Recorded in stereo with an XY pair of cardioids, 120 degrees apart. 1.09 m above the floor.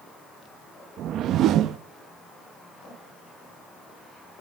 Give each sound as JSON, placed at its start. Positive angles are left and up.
{"t": 1.0, "sound": "a whoosh", "azimuth_deg": -65, "distance_m": 1.0}